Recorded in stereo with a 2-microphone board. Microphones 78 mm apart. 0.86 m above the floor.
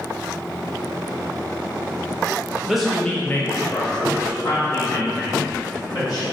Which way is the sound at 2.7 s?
5° right (ahead or behind).